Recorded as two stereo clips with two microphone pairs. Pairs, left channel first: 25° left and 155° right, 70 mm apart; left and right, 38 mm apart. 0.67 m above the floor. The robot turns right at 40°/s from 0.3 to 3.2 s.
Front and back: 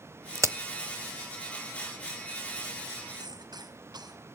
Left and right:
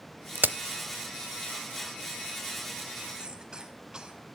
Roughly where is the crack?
Behind right.